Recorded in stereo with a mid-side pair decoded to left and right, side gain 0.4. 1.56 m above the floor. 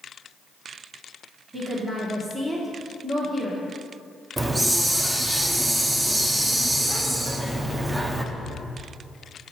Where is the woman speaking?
25° right, 1.3 m.